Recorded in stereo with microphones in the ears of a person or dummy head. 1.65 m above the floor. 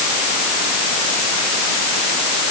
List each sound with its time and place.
Only background noise.